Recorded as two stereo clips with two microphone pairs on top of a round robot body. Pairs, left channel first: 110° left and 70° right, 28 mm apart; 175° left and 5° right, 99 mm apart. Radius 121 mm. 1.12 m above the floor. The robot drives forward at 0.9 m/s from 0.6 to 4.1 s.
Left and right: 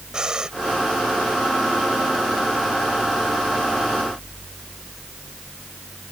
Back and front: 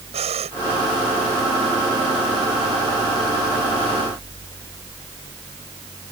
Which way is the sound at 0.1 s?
5° right.